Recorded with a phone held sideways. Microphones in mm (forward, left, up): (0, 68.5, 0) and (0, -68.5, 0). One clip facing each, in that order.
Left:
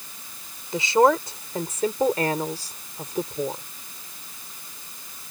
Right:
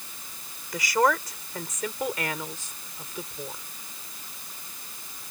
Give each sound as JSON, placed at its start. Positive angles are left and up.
{"t": 0.7, "sound": "a woman speaking", "side_deg": 25}